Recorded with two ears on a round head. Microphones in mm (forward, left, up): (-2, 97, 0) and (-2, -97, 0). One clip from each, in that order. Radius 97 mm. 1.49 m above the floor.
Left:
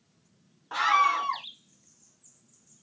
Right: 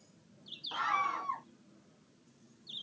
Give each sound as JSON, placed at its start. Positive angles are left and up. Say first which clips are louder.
{"t": 0.7, "sound": "a scream", "louder": "left 10 dB", "side_deg": 70}